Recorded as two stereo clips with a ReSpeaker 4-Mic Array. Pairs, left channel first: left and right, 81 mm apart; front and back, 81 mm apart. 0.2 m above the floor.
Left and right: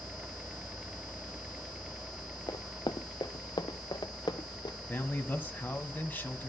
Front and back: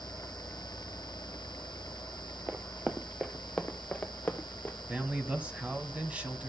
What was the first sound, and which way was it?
Running footsteps, 115° left.